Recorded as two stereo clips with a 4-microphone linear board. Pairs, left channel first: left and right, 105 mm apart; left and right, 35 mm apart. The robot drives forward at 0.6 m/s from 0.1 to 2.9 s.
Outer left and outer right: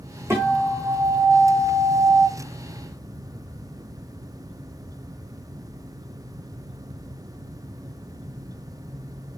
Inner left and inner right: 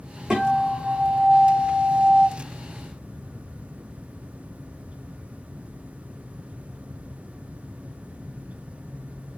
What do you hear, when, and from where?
0.3 s a guitar: 25° right (ahead or behind), 4.5 m; by 2.3 s 30° right (ahead or behind), 3.5 m